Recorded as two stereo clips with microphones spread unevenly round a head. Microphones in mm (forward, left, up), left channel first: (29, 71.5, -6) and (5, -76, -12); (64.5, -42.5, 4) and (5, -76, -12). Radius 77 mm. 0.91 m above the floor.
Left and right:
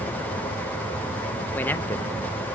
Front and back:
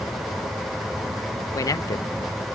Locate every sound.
1.6 s a man speaking: 5° left, 0.6 m